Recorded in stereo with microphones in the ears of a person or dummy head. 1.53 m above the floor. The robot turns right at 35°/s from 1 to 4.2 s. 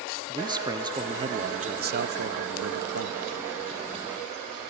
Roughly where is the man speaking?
Behind.